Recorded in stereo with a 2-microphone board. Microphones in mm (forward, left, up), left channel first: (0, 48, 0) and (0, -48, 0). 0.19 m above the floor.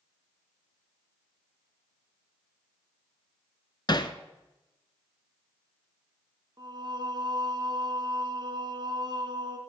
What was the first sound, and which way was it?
Hammering, 50° left (ahead or behind).